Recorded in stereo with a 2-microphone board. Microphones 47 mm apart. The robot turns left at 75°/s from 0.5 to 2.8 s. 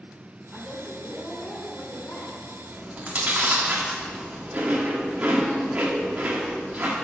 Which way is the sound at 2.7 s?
25° right (ahead or behind).